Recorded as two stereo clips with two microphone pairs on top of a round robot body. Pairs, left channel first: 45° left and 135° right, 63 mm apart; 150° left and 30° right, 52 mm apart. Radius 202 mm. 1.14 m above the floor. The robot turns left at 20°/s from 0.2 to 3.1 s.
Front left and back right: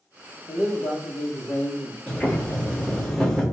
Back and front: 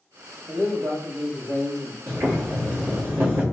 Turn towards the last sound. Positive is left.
turn(degrees=-45)